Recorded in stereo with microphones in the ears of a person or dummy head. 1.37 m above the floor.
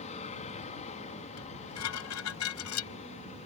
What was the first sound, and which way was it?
An aircraft, 35° left (ahead or behind).